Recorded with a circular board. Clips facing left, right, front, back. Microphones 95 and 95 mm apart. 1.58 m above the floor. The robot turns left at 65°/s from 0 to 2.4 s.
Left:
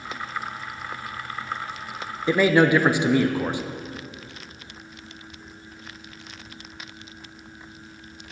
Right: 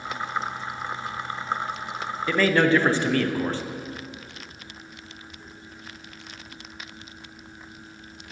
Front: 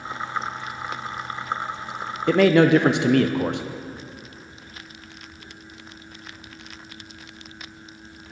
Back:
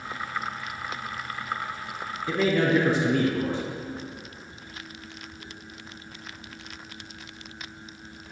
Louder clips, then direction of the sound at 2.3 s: Left 2 dB, front 8 dB; 20° left.